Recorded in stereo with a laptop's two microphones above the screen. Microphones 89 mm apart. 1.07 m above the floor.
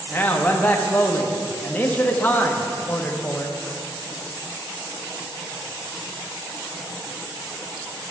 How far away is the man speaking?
About 0.8 m.